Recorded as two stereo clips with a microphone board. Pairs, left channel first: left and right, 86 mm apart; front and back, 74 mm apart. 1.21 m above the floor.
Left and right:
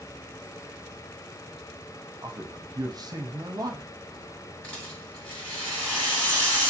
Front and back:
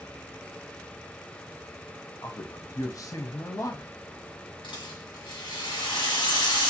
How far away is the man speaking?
About 0.6 m.